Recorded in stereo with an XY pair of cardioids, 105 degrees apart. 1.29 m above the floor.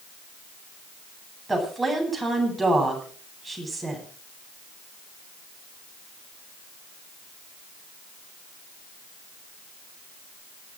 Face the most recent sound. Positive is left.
turn(degrees=-10)